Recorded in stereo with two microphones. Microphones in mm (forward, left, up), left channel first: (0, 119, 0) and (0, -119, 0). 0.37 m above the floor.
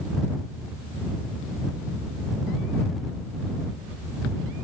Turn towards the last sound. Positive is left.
No sound to turn to.